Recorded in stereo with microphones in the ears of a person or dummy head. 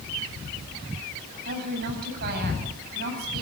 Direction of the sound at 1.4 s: 55° right (ahead or behind).